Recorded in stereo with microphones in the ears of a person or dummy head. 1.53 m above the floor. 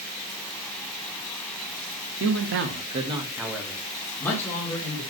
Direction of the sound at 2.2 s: 75° right (ahead or behind).